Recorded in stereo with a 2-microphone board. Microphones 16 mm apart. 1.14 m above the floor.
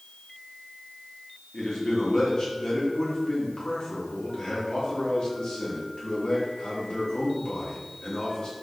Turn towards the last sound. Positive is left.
turn(degrees=65)  # may be behind; listen again after turning